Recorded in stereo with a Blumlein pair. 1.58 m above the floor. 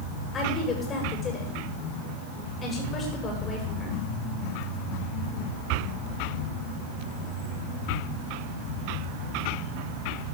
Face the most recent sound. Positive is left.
turn(degrees=20)